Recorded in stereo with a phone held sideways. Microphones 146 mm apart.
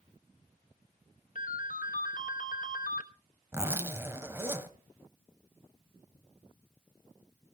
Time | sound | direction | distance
1.4 | a ringtone | 65° left (ahead or behind) | 1.2 m
3.5 | a zipper | 15° right (ahead or behind) | 1.3 m